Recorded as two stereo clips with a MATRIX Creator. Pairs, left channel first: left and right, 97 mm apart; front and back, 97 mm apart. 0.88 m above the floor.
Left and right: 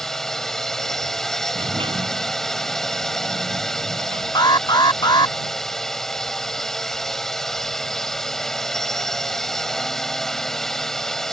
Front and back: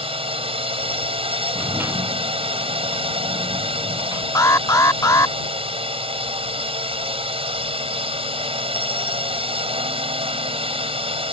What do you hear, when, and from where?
0.0 s a drone: 175° left
1.6 s a sliding door: 110° right
4.3 s an alarm: 55° left